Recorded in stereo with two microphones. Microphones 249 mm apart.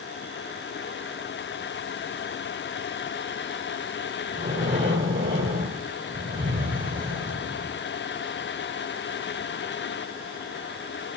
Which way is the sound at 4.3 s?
50° right (ahead or behind).